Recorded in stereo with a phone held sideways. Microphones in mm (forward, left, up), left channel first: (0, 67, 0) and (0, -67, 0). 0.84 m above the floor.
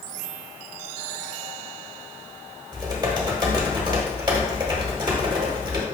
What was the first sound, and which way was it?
Typing on a keyboard, 30° right (ahead or behind).